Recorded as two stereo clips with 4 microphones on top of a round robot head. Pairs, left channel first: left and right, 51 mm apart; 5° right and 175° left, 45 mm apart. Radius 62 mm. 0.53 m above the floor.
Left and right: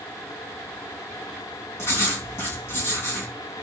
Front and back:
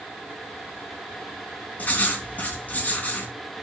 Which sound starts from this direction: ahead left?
Writing, at 1.8 s.